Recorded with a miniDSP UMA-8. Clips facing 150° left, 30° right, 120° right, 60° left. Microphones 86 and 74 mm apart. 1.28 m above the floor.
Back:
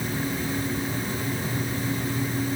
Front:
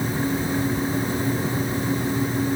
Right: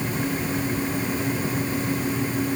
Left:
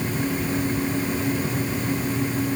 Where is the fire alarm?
No fire alarm in this recording.